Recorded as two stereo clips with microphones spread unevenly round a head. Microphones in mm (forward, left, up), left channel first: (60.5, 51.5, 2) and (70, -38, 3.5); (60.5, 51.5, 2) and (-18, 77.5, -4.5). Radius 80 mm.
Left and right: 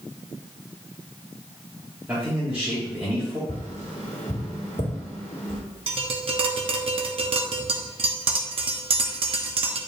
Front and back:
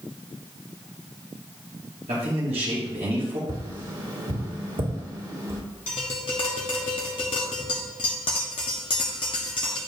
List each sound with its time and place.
2.1 s a man speaking: 165° right, 2.0 m
3.5 s tapping: 135° left, 2 m
5.9 s tapping: 70° right, 1.1 m